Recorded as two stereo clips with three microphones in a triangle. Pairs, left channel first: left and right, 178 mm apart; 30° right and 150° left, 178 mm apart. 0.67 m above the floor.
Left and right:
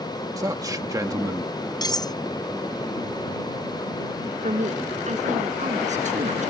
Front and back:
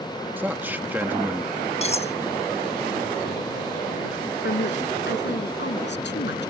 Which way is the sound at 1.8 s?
20° left.